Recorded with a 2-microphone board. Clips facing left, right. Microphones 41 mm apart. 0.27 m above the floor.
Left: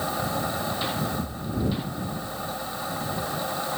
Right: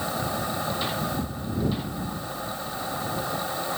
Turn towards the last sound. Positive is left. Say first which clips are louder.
# even
turn(degrees=-20)  # may be behind; listen again after turning